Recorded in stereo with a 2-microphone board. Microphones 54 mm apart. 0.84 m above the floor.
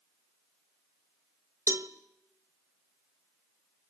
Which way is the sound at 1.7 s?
60° right (ahead or behind).